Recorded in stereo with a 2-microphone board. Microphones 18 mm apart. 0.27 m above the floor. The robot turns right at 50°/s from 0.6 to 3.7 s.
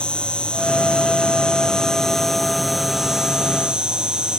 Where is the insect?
85° left, 0.9 m; by 4.4 s 120° right, 0.9 m.